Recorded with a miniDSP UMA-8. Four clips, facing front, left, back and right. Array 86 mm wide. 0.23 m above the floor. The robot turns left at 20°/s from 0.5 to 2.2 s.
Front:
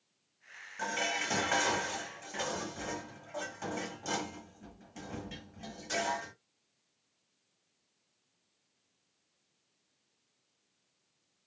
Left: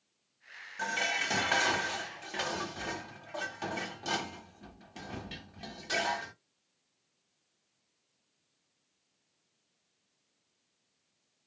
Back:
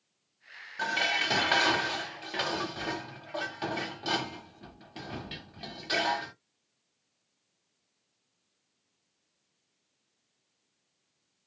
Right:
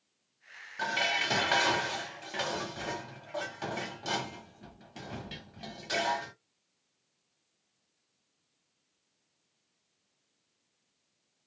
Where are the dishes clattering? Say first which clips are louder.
Right 2 dB, back 4 dB; 145° right, 0.9 m; by 6.3 s 170° right, 0.9 m.